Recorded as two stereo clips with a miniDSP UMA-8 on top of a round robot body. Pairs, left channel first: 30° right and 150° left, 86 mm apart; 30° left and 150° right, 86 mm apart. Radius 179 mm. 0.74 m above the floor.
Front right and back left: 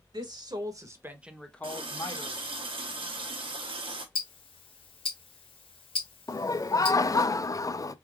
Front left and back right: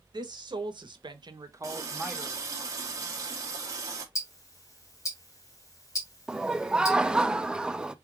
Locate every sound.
0.1 s a woman speaking: straight behind, 1.6 m; by 2.4 s 60° right, 1.3 m
1.6 s a running tap: 160° left, 1.1 m
4.2 s ticking: 20° right, 0.8 m
6.3 s laughter: 70° right, 0.6 m